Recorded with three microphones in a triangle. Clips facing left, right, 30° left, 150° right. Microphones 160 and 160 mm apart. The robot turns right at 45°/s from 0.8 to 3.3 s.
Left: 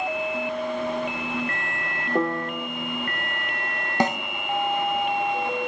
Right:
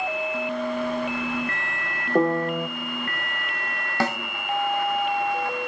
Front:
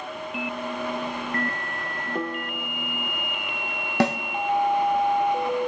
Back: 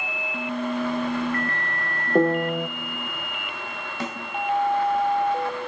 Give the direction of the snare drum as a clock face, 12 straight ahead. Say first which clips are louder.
Left 2 dB, front 11 dB; 11 o'clock.